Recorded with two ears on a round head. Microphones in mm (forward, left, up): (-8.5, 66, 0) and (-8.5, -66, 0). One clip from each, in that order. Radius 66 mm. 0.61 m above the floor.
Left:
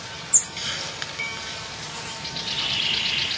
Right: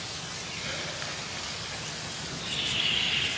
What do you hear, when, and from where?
0.6 s a hiss: 85° left, 5.5 m
2.2 s a bird: 15° left (ahead or behind), 5.5 m